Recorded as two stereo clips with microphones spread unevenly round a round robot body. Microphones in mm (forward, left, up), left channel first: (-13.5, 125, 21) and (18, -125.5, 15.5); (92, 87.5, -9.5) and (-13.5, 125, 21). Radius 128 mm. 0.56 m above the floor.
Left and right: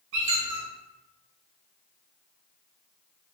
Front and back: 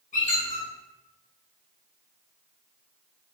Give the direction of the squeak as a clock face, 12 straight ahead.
1 o'clock.